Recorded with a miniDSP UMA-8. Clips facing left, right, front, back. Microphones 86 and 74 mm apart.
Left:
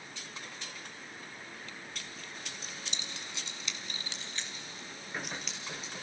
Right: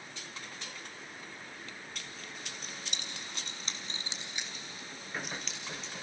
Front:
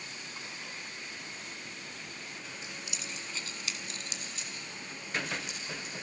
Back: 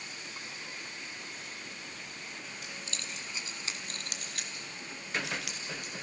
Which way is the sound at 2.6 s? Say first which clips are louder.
Even, even; 60° right.